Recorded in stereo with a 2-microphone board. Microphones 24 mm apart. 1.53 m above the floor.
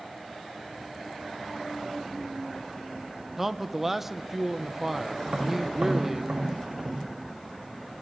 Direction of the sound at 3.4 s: 10° right (ahead or behind).